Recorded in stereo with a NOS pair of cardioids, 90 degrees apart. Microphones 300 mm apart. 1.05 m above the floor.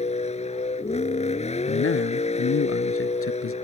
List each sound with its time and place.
0.0 s a vehicle: 20° left
1.7 s a man speaking: 45° left